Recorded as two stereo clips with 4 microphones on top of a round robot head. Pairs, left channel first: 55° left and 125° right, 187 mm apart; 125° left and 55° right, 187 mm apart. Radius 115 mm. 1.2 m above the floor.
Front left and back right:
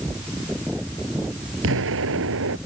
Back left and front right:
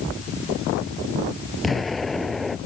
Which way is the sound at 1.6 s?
145° right.